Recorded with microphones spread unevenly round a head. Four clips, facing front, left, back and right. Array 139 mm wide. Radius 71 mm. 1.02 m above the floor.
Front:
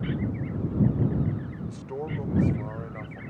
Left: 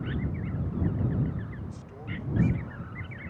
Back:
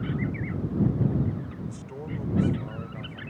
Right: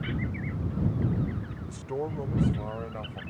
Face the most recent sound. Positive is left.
turn(degrees=-75)